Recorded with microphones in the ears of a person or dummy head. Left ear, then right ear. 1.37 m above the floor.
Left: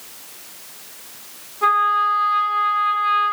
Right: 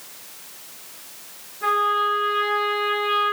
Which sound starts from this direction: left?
A trumpet, at 1.6 s.